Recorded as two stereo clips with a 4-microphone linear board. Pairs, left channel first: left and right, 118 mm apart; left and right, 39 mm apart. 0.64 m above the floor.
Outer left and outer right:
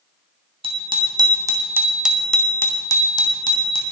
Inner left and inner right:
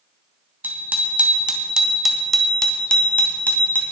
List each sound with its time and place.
0.6 s a bicycle bell: 50° right (ahead or behind), 3 m; by 3.8 s 50° left (ahead or behind), 3.5 m